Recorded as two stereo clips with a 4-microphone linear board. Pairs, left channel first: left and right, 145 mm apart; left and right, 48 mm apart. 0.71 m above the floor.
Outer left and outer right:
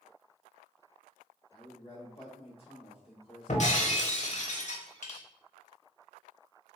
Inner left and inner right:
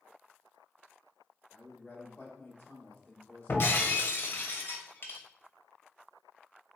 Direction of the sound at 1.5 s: 40° left (ahead or behind).